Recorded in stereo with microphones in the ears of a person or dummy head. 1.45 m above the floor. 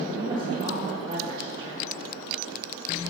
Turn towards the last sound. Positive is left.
turn(degrees=-30)  # may be behind; listen again after turning